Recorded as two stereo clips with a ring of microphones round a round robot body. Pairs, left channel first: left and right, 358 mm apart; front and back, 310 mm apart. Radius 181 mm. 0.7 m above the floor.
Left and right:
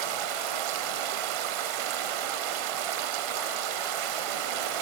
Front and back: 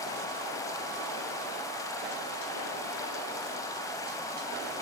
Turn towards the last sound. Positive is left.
turn(degrees=-80)